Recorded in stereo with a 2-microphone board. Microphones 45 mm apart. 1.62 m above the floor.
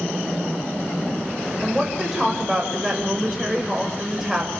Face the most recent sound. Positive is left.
turn(degrees=-10)  # may be behind; listen again after turning